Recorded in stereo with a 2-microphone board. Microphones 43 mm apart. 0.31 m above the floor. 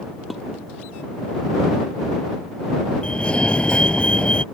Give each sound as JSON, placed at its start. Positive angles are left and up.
{"t": 0.3, "sound": "dishes clattering", "side_deg": 0}
{"t": 3.0, "sound": "a fire alarm", "side_deg": 25}